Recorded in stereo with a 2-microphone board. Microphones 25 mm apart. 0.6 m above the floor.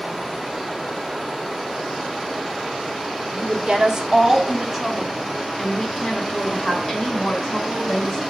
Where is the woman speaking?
50° right (ahead or behind), 1.0 m; by 8.2 s 20° left (ahead or behind), 2.5 m.